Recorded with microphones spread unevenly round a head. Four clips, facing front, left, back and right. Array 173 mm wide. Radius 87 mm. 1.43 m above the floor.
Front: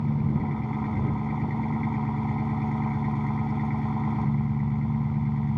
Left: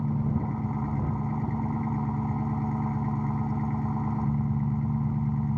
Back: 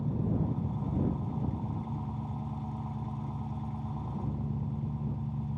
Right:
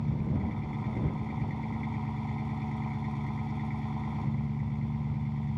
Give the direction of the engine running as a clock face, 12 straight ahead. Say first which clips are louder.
Left 4 dB, front 5 dB; 11 o'clock.